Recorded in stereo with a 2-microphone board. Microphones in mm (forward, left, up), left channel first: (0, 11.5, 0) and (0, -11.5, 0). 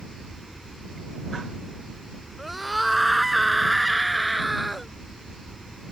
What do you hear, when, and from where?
2.4 s a scream: 5° right (ahead or behind)